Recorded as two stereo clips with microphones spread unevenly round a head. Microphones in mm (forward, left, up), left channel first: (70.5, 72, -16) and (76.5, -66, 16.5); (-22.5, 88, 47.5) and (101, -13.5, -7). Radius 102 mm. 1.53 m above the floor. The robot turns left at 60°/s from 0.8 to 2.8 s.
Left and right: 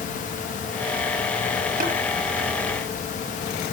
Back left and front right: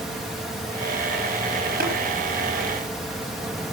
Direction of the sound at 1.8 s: 95° right.